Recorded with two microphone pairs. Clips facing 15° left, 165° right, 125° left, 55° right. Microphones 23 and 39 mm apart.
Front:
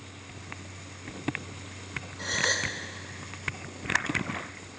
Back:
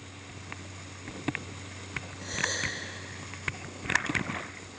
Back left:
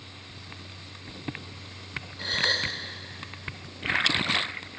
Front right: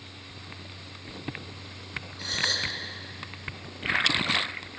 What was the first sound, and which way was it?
A gasp, 60° left.